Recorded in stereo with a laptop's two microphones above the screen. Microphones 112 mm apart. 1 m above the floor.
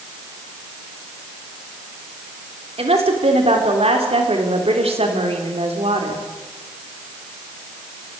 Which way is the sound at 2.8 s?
65° right (ahead or behind).